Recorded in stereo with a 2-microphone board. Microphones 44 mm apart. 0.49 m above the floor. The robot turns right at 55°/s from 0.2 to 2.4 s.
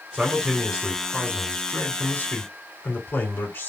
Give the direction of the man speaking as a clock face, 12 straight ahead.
1 o'clock.